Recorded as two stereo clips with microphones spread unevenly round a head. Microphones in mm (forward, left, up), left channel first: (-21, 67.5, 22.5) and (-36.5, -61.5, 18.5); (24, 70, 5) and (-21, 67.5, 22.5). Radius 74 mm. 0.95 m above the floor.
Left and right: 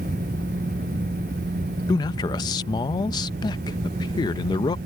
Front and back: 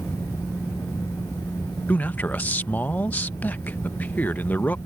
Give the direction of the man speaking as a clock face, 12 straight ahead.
11 o'clock.